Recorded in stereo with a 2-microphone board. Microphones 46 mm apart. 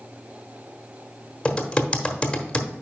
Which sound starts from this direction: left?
Typing on a keyboard, at 1.4 s.